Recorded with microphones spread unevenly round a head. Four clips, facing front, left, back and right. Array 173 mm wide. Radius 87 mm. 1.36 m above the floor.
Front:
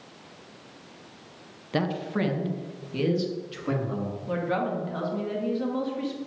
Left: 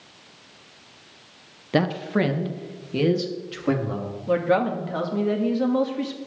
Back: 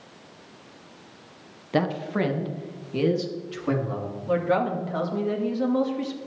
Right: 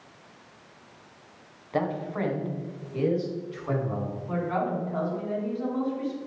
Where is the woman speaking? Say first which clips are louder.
Left 8 dB, back 5 dB; 105° left, 1.8 m.